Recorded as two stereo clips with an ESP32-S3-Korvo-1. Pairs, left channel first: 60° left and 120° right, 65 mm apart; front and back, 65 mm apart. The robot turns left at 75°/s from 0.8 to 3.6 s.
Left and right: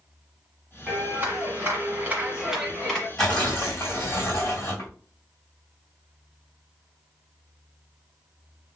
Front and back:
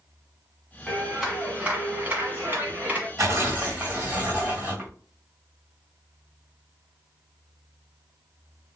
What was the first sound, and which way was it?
A clap, 65° right.